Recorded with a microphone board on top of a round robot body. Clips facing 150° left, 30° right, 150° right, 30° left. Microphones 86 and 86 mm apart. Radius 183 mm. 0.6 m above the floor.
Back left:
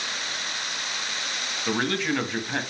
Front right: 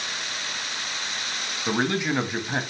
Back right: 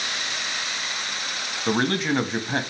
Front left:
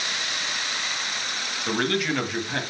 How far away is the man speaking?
About 1.3 m.